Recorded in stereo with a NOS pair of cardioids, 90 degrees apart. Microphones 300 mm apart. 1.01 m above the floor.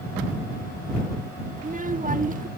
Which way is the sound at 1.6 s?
25° right.